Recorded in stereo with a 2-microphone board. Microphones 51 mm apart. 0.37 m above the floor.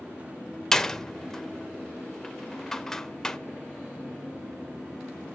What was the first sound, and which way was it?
A door slam, 10° left (ahead or behind).